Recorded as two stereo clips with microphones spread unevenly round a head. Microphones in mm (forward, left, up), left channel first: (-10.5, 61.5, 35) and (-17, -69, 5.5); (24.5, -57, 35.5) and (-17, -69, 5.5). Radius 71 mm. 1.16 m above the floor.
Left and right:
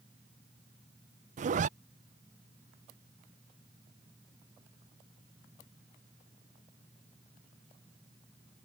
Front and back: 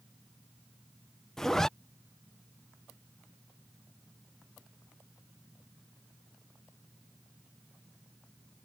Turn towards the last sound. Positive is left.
turn(degrees=-75)